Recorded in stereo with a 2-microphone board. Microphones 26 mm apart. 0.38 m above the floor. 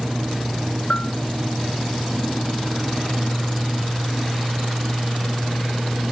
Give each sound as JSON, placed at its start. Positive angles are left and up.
{"t": 0.9, "sound": "a bell", "side_deg": 70}